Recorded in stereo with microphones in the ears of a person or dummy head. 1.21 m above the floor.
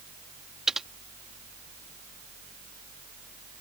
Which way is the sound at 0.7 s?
Centre (ahead or behind).